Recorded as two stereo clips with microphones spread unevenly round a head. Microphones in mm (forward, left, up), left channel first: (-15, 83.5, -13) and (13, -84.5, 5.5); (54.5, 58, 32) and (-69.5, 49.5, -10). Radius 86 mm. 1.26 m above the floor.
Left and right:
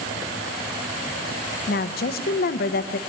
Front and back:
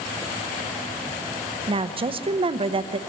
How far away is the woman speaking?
About 0.8 m.